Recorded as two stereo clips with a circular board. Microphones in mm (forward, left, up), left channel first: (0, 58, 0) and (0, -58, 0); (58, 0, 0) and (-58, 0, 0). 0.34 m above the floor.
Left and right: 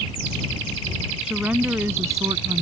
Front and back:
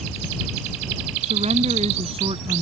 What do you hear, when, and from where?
1.2 s a woman speaking: 175° right; by 2.6 s 140° right